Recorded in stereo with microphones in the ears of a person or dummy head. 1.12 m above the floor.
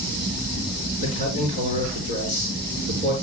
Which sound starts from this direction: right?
A man speaking, at 1.0 s.